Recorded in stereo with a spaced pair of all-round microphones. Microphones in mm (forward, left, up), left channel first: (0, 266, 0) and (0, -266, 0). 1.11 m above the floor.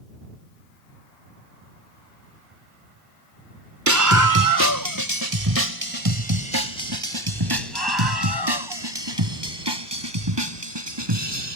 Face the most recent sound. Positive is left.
turn(degrees=-50)  # may be behind; listen again after turning